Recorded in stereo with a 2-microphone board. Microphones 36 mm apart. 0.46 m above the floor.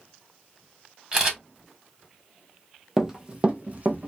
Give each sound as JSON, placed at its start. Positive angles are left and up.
{"t": 1.1, "sound": "a camera shutter", "side_deg": -20, "distance_m": 1.7}
{"t": 3.0, "sound": "running footsteps", "side_deg": -10, "distance_m": 0.6}